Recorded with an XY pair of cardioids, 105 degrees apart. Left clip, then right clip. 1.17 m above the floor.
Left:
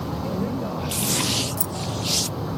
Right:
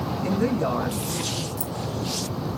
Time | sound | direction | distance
0.2 | a woman speaking | 60° right | 7 m
1.6 | keys jangling | 40° left | 0.8 m